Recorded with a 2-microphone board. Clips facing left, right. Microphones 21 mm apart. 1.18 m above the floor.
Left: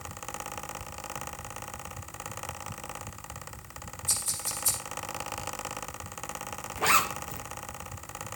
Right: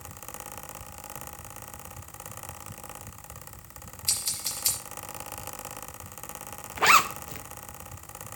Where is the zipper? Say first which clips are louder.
Right 5 dB; 25° right (ahead or behind), 0.7 m.